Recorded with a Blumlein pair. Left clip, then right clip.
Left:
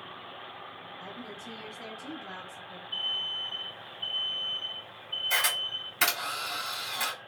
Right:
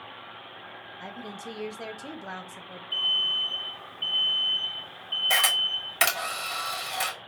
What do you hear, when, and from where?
1.0 s a woman speaking: 25° right, 0.9 m
2.9 s an alarm: 40° right, 0.9 m
5.3 s a camera shutter: 55° right, 2 m